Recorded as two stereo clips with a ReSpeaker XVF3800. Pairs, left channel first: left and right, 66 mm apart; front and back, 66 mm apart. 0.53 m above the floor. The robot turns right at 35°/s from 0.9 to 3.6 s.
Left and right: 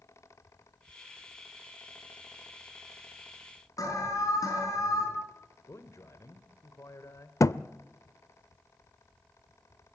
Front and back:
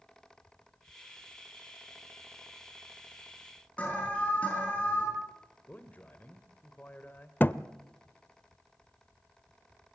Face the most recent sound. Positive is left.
turn(degrees=55)